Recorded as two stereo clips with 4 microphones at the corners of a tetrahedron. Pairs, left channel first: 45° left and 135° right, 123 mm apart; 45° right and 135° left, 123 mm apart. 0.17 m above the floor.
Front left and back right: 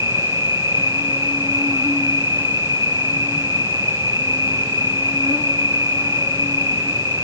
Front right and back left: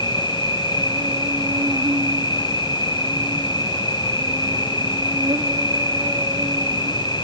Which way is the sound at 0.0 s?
Straight behind.